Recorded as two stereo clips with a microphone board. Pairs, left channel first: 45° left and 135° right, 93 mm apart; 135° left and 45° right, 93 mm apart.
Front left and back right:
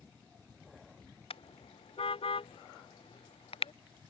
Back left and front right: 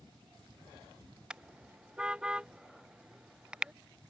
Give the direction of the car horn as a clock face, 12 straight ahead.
11 o'clock.